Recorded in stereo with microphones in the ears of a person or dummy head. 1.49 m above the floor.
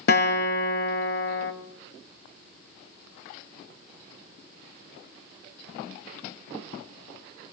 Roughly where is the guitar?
Left.